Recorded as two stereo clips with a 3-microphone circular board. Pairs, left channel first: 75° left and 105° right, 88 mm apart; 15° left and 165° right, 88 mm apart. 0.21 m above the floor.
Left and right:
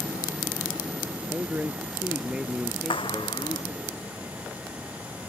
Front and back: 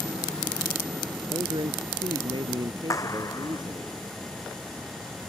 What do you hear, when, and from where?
1.3 s a man speaking: 175° right; by 3.9 s 165° left
2.9 s a clap: 65° left